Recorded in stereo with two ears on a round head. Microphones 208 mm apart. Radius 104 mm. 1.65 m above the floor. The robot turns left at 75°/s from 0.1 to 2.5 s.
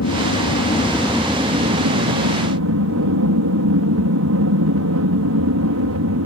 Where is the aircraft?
80° left; by 6.3 s 100° right.